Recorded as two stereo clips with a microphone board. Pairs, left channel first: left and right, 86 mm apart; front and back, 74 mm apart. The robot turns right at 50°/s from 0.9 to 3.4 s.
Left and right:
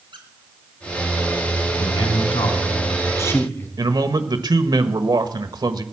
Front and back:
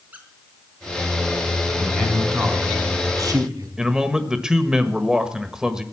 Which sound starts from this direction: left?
A man speaking, at 1.8 s.